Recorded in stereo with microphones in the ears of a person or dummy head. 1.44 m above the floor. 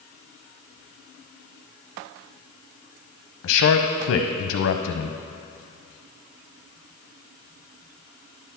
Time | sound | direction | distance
3.4 | a man speaking | 65° left (ahead or behind) | 0.6 m